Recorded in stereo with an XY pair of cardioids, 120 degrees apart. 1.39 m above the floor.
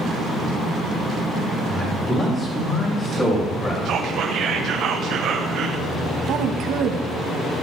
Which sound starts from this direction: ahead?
A man speaking, at 1.7 s.